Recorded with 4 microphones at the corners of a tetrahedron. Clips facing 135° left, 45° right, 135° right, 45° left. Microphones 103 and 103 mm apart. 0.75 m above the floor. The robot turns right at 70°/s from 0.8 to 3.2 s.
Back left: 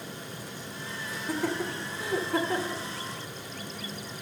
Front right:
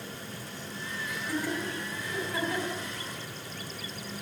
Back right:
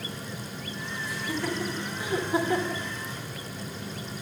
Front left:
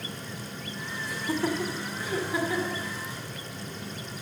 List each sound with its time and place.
1.1 s laughter: 80° left, 2 m; by 2.8 s 160° right, 2 m